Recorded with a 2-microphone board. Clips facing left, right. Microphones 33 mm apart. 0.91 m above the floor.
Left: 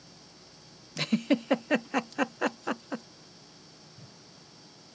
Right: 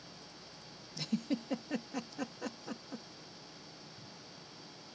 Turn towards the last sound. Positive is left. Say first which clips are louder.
# even
turn(degrees=65)  # may be behind; listen again after turning